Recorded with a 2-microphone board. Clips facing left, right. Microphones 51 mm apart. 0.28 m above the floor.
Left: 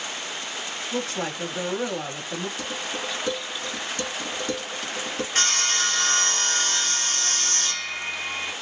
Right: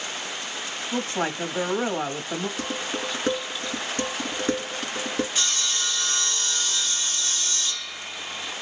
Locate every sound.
0.9 s a woman speaking: 35° right (ahead or behind), 1.5 m
2.6 s dishes clattering: 45° right (ahead or behind), 1.7 m
5.3 s sawing: 60° left (ahead or behind), 0.8 m